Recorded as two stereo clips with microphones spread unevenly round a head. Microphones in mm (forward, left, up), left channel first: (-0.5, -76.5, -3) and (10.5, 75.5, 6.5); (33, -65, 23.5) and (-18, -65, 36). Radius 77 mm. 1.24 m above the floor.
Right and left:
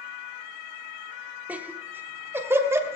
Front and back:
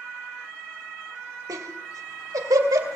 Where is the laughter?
165° left, 1.7 m; by 3.0 s 160° left, 3 m.